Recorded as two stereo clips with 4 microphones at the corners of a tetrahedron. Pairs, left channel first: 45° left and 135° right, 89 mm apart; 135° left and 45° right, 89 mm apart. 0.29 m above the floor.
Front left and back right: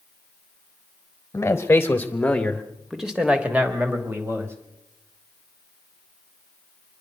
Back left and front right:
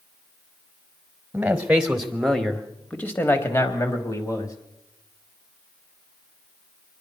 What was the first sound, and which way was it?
A man speaking, 15° left.